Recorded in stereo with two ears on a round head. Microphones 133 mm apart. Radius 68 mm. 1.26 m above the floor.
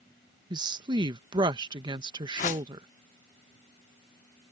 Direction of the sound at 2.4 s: 55° left (ahead or behind).